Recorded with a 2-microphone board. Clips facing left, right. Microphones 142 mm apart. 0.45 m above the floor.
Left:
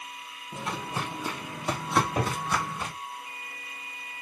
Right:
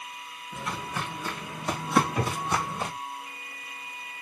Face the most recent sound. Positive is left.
turn(degrees=45)  # may be behind; listen again after turning